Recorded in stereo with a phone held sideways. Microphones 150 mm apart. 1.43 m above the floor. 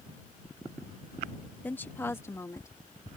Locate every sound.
1.6 s a woman speaking: 10° left (ahead or behind); by 2.7 s 20° left (ahead or behind)